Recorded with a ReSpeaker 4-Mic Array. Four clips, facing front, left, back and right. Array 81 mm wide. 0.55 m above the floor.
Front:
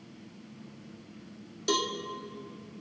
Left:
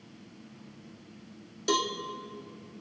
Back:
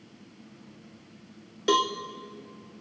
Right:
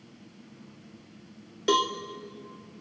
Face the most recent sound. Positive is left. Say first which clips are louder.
# right 4 dB, back 6 dB
turn(degrees=-140)